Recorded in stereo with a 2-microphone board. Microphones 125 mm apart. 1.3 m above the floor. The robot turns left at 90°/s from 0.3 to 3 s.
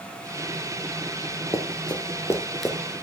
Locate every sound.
1.5 s running footsteps: 25° left (ahead or behind), 1.7 m; by 2.8 s 10° right (ahead or behind), 1.3 m